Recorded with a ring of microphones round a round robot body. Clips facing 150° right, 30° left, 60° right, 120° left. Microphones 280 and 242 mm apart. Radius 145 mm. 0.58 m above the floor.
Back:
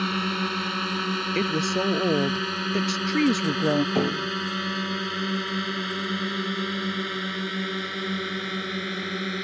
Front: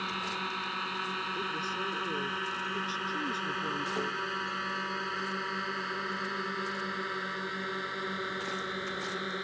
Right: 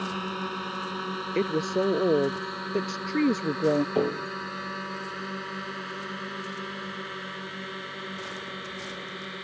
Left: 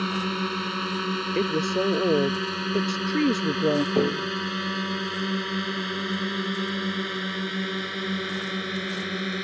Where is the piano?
165° right.